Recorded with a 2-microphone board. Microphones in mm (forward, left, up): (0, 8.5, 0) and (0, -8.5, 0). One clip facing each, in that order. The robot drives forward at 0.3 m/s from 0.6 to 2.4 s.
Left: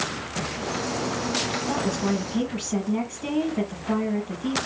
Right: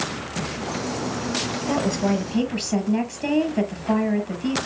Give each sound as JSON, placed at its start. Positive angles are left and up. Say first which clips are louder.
{"t": 1.7, "sound": "a woman speaking", "louder": "right 6 dB", "side_deg": -50, "distance_m": 4.5}